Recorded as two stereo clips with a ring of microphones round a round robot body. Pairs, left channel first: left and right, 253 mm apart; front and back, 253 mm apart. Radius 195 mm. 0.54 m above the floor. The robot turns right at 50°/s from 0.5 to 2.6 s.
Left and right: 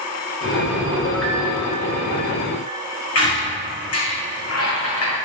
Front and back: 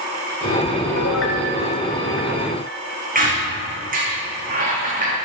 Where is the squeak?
120° left, 3 m.